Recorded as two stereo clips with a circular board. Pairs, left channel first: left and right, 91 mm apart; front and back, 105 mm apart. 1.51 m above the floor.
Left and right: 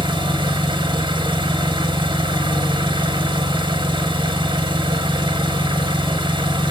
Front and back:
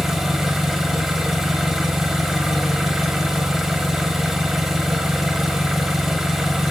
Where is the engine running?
95° right, 1.6 m.